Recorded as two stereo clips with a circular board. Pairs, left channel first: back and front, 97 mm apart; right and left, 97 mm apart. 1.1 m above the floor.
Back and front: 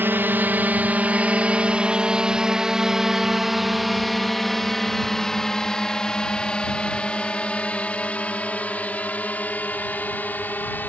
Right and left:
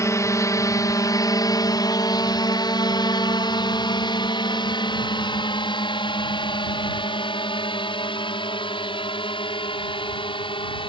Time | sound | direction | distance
0.0 | a drone | 55° right | ?